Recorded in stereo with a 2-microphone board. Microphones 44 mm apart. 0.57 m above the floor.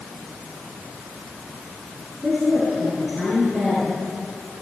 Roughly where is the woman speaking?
Centre.